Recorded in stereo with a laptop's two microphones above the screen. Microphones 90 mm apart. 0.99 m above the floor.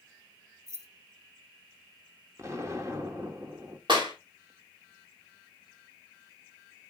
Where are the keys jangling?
35° right (ahead or behind), 0.9 m.